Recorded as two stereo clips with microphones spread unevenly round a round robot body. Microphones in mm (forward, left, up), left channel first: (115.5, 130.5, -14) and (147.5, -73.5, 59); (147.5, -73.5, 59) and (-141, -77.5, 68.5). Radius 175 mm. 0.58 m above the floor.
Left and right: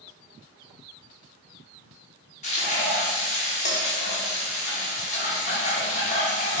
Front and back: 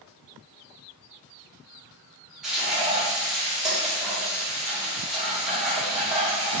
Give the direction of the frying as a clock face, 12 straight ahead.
9 o'clock.